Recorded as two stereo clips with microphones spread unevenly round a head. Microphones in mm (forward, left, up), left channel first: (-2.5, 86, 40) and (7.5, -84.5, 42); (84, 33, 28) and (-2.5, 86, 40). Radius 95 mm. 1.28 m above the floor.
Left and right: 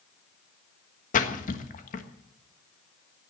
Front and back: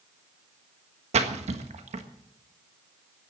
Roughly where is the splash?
Behind left.